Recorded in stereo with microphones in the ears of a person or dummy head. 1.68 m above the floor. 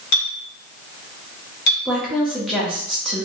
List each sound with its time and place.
0.1 s a clink: 65° left (ahead or behind), 1.7 m
1.9 s a woman speaking: centre (ahead or behind), 0.5 m